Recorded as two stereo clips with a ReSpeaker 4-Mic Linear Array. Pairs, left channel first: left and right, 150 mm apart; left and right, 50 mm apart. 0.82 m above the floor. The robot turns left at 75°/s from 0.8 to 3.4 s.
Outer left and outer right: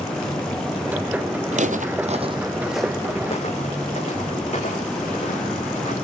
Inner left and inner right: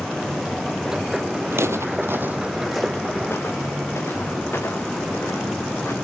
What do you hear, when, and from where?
1.5 s footsteps: 50° right (ahead or behind), 1.2 m; by 6.0 s 50° left (ahead or behind), 6.5 m